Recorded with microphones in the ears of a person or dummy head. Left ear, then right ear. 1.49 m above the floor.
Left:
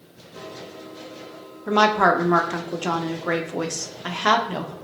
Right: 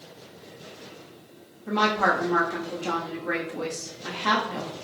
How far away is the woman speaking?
About 0.7 m.